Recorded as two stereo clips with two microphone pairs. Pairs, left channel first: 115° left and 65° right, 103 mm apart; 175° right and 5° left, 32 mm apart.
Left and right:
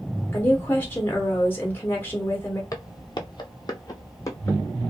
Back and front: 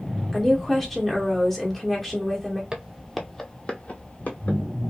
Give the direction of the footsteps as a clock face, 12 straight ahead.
10 o'clock.